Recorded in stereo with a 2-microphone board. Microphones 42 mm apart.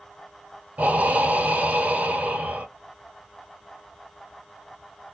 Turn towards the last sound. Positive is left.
turn(degrees=-40)  # may be behind; listen again after turning